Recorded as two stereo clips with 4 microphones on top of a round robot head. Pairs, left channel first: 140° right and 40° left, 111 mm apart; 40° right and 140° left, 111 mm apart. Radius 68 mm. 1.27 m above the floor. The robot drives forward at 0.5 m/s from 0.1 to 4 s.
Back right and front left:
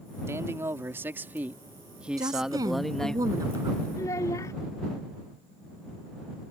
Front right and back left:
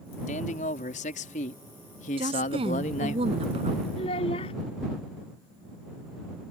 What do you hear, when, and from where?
0.3 s a man speaking: 25° right; by 3.2 s 55° right
2.2 s a woman speaking: 100° left
4.0 s a child speaking: 75° right